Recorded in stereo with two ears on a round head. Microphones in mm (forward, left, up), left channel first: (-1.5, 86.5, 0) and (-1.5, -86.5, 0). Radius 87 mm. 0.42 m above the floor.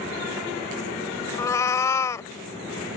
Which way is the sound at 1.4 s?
15° left (ahead or behind).